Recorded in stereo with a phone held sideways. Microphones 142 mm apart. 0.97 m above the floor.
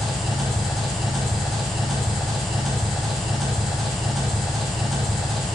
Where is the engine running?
Centre (ahead or behind), 3 m.